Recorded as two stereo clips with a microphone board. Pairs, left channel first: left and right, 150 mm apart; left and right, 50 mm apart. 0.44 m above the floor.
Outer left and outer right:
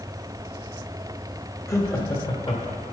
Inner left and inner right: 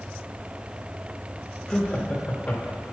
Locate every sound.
1.7 s laughter: 20° left (ahead or behind), 1.5 m; by 2.9 s 40° left (ahead or behind), 1.9 m